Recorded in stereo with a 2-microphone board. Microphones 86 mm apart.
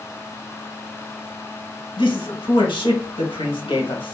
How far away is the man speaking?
About 1.3 m.